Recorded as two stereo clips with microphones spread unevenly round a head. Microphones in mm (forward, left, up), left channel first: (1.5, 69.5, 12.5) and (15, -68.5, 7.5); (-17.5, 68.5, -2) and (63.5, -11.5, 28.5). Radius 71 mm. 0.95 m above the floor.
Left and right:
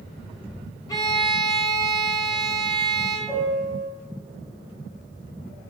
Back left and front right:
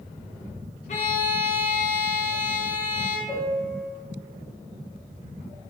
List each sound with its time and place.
0.9 s a violin: 165° left, 0.6 m
3.3 s a piano: 170° right, 2.0 m